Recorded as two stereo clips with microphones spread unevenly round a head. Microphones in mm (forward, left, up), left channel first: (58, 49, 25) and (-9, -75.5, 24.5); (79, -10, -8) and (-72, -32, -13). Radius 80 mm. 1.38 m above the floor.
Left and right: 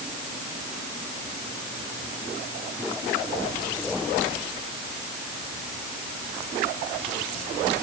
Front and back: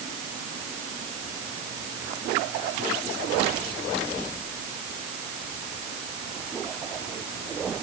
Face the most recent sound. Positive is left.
No sound to turn to.